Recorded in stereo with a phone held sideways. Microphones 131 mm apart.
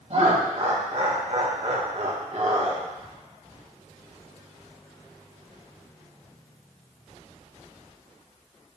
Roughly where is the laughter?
Right.